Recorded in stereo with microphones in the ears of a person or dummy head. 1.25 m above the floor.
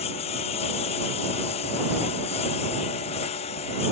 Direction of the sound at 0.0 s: 35° left (ahead or behind).